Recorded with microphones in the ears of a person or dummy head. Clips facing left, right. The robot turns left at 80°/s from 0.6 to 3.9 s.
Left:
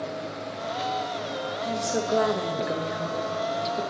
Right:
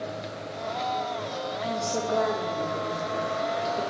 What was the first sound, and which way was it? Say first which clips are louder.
A woman speaking: left 2 dB; 175° right.